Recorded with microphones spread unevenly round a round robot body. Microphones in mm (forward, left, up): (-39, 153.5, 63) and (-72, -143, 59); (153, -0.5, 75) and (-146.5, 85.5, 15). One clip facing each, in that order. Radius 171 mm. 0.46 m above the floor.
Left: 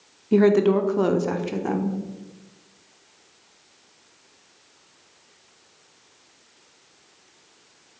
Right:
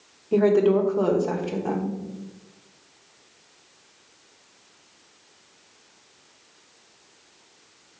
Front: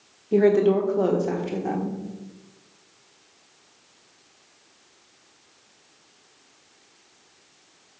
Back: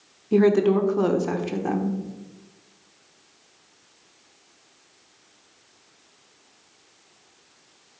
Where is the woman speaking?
125° left, 1.0 m.